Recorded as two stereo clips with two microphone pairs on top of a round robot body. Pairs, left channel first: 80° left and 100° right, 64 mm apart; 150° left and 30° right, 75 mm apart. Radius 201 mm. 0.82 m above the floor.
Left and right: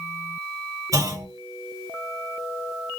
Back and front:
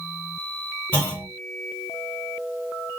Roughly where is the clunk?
Behind right.